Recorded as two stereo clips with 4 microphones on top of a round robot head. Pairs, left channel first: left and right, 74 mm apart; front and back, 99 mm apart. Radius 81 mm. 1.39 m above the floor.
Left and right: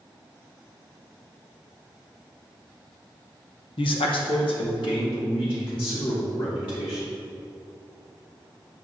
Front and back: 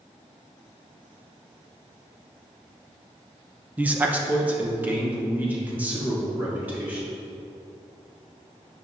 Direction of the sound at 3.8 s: 105° left.